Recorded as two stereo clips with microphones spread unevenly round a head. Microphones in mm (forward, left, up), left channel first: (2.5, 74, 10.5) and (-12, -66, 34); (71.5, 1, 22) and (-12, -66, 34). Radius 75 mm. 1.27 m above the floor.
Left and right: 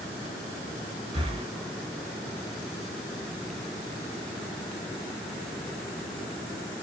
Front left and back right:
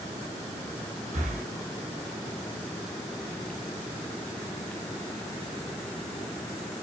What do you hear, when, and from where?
1.1 s breathing: 145° right, 0.9 m